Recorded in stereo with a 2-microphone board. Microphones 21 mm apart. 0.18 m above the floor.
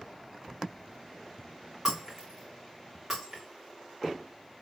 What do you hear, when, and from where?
1.9 s breaking glass: 25° right (ahead or behind), 3 m